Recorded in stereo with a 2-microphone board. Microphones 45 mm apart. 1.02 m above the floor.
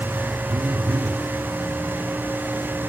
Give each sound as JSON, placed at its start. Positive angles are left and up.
{"t": 0.5, "sound": "a phone buzzing", "side_deg": -40, "distance_m": 1.2}